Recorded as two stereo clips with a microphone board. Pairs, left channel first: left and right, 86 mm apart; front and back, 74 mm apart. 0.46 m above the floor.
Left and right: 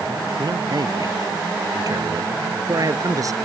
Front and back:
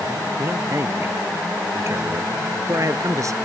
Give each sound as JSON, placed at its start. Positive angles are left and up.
{"t": 0.4, "sound": "a man speaking", "azimuth_deg": -125}